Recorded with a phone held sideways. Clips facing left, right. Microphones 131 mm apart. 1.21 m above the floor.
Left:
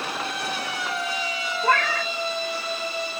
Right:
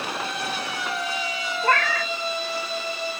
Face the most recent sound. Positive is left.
turn(degrees=5)  # may be behind; listen again after turning